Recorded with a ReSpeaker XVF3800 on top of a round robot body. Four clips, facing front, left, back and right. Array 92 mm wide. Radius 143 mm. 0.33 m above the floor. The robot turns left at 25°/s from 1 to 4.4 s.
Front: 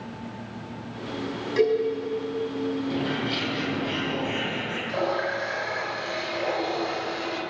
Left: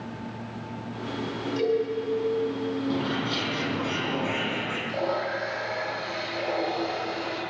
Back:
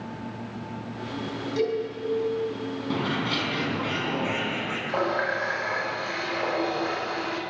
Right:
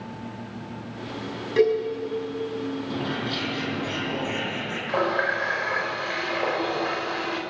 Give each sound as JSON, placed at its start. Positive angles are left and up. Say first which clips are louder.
{"t": 1.6, "sound": "a cowbell", "louder": "right 5 dB, front 5 dB", "azimuth_deg": -60, "distance_m": 5.5}
{"t": 2.9, "sound": "a bird", "louder": "left 1 dB, even", "azimuth_deg": 175, "distance_m": 4.0}
{"t": 4.9, "sound": "a running tap", "louder": "right 6 dB, back 1 dB", "azimuth_deg": -125, "distance_m": 3.5}